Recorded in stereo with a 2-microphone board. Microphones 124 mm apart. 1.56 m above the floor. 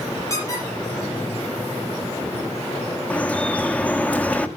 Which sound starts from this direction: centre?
Dripping, at 3.1 s.